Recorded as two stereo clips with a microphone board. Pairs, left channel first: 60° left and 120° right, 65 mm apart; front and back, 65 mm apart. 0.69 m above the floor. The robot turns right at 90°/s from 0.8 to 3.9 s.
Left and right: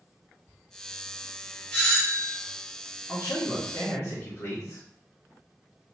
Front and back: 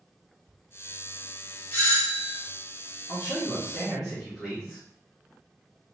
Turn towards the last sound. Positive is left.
turn(degrees=95)